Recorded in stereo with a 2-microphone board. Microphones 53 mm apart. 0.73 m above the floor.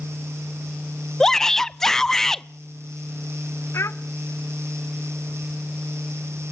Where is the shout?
10° left (ahead or behind), 0.5 m.